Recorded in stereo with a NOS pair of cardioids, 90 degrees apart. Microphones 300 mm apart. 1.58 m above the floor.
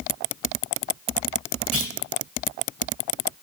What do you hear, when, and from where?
1.7 s a clunk: 50° right, 1.0 m